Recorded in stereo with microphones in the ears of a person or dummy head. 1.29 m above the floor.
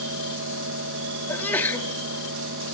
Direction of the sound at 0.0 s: 70° right (ahead or behind).